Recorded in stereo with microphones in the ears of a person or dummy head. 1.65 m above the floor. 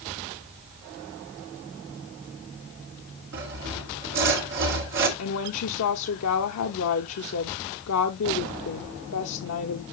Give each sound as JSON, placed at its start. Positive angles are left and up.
{"t": 3.3, "sound": "sawing", "side_deg": -50, "distance_m": 1.8}
{"t": 5.2, "sound": "a woman speaking", "side_deg": 85, "distance_m": 1.0}